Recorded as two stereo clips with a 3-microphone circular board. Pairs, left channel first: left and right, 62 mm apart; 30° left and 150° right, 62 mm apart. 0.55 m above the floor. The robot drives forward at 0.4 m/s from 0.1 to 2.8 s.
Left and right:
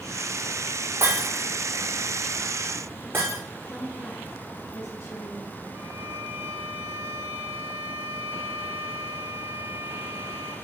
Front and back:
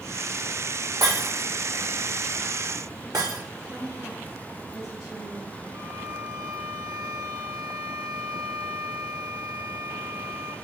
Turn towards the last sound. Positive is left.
turn(degrees=-150)